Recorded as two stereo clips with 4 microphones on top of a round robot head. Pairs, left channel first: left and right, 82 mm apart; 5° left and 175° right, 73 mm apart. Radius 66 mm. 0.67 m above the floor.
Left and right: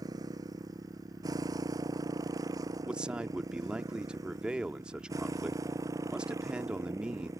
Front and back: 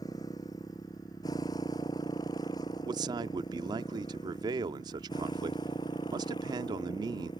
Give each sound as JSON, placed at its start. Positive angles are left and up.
{"t": 0.0, "sound": "a motorcycle", "azimuth_deg": -50}
{"t": 2.9, "sound": "a man speaking", "azimuth_deg": -170}